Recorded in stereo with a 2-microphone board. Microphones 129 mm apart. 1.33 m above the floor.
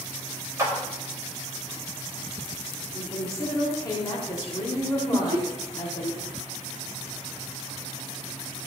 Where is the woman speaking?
30° left (ahead or behind), 4.5 m.